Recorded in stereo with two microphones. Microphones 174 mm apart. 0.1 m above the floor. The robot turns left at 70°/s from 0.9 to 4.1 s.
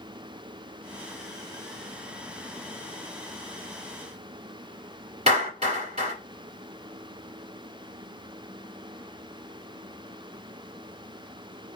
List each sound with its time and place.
5.3 s a clap: 35° right (ahead or behind), 1.7 m